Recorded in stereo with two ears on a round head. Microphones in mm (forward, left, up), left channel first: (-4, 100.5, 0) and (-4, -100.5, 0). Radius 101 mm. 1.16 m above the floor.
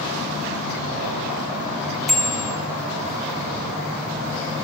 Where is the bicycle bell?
Centre (ahead or behind), 3 m.